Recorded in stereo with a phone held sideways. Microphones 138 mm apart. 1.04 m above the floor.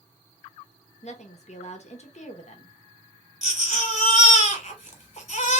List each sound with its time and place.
1.0 s a woman speaking: 55° left (ahead or behind), 1.0 m
3.4 s a baby crying: 55° left (ahead or behind), 1.2 m